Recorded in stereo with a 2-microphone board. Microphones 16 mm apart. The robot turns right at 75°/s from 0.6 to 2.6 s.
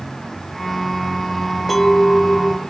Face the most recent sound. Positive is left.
turn(degrees=80)